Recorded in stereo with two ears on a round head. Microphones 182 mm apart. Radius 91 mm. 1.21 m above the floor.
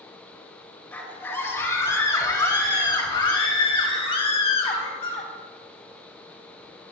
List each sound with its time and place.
0.9 s a scream: 10° left (ahead or behind), 4 m; by 5.3 s 35° left (ahead or behind), 6.5 m